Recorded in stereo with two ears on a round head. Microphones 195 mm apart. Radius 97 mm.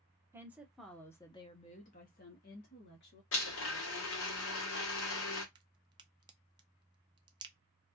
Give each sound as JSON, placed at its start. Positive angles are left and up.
{"t": 0.3, "sound": "a woman speaking", "side_deg": -10, "distance_m": 0.9}
{"t": 3.3, "sound": "a blender", "side_deg": 70, "distance_m": 1.2}
{"t": 5.5, "sound": "a crack", "side_deg": -20, "distance_m": 0.5}